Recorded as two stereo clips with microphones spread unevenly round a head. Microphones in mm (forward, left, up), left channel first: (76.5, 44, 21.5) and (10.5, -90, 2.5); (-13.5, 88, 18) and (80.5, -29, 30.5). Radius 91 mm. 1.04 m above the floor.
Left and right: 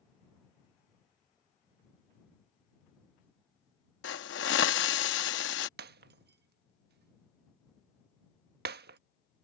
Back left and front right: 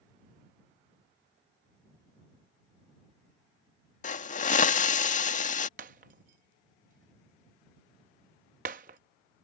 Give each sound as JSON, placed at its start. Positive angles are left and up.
{"t": 4.0, "sound": "a hiss", "azimuth_deg": 90}
{"t": 5.8, "sound": "breaking glass", "azimuth_deg": -100}